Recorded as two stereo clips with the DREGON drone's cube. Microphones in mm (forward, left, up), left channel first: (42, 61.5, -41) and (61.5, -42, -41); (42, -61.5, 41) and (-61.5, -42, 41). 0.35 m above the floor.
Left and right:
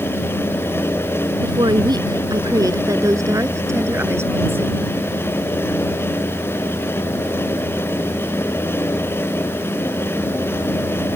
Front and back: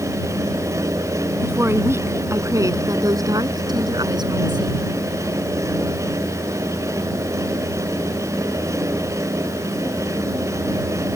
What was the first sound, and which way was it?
A woman speaking, 120° right.